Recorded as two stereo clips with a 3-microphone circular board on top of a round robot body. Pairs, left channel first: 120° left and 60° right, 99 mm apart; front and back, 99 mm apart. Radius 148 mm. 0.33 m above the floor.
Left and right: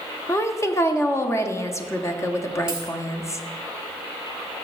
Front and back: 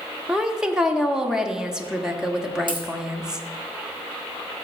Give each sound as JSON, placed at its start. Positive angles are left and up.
{"t": 0.3, "sound": "a woman speaking", "azimuth_deg": 100, "distance_m": 1.1}
{"t": 2.7, "sound": "a dropped coin", "azimuth_deg": -145, "distance_m": 1.9}